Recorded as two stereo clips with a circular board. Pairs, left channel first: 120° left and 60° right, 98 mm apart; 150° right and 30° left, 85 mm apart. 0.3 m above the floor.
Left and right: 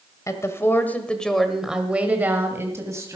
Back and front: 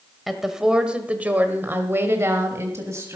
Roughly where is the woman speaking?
Behind left.